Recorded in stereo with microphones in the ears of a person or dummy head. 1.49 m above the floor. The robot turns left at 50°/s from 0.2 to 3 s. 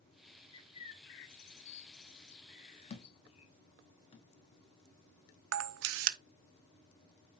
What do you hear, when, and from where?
0.5 s a bird: 25° left (ahead or behind), 1.0 m; by 3.5 s 30° left (ahead or behind), 1.0 m
2.9 s a thud: 40° left (ahead or behind), 1.2 m; by 4.3 s 35° left (ahead or behind), 1.2 m
5.5 s a camera shutter: 75° right (ahead or behind), 0.8 m